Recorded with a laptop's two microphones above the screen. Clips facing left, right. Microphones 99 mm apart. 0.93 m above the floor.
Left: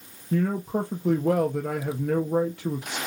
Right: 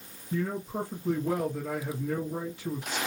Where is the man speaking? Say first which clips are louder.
Left 6 dB; 65° left (ahead or behind), 1.1 m.